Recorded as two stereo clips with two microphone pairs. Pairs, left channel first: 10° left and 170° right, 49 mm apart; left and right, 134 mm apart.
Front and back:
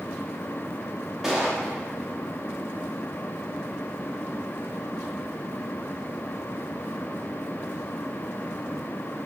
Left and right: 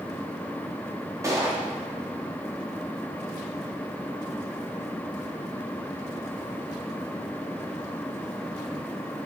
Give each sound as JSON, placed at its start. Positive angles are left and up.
{"t": 1.2, "sound": "a gunshot", "azimuth_deg": -100, "distance_m": 0.7}